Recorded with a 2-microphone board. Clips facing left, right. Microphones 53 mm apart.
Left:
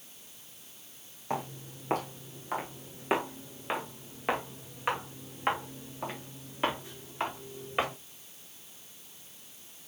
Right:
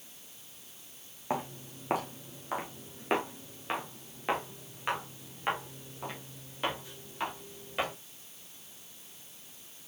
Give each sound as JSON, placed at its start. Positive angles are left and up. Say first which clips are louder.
{"t": 1.3, "sound": "footsteps", "louder": "even", "side_deg": -15, "distance_m": 3.5}